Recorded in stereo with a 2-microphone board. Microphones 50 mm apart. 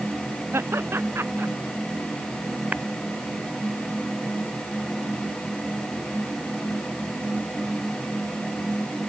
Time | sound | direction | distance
0.5 | laughter | 55° right (ahead or behind) | ?
2.7 | tapping | 35° right (ahead or behind) | ?